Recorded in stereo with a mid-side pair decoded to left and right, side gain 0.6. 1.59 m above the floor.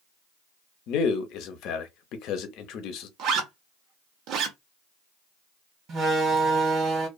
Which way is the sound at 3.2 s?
60° right.